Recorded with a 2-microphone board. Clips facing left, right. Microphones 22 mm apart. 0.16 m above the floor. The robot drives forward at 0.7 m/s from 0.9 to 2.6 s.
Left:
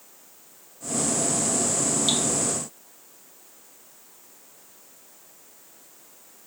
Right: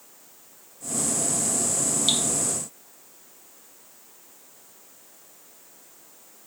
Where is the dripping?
10° right (ahead or behind), 0.5 m.